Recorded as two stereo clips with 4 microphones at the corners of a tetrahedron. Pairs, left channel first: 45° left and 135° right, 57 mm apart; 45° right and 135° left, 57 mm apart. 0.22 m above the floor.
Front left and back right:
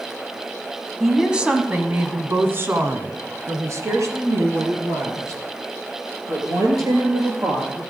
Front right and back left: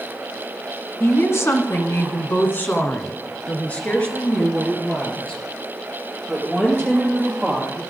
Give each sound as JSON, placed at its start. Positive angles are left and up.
{"t": 1.0, "sound": "a woman speaking", "azimuth_deg": -50, "distance_m": 1.7}